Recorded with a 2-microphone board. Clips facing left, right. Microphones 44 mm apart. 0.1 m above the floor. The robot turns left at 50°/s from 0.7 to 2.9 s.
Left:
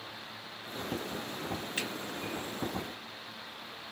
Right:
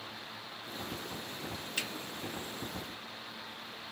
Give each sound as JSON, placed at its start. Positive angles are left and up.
{"t": 1.8, "sound": "a finger snap", "side_deg": 20, "distance_m": 1.2}